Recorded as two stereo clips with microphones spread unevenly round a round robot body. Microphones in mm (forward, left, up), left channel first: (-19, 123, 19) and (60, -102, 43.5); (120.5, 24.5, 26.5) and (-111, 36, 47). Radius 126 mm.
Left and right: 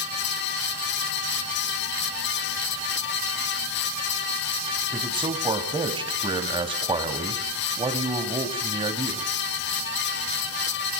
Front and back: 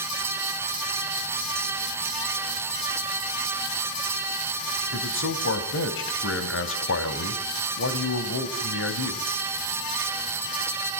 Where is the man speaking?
Straight ahead, 2.5 m.